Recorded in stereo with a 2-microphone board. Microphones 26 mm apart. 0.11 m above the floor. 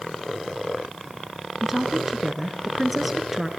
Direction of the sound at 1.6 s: 10° right (ahead or behind).